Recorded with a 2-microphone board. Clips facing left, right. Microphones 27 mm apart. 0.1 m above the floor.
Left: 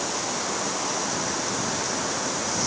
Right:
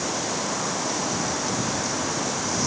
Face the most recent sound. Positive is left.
No sound to turn to.